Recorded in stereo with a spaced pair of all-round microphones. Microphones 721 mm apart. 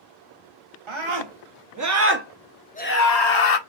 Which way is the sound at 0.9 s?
40° right (ahead or behind).